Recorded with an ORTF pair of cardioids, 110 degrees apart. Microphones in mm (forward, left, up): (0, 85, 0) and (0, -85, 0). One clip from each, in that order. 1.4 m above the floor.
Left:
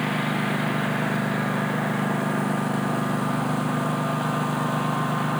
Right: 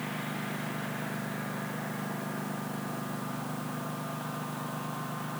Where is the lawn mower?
60° left; by 5.4 s 65° left.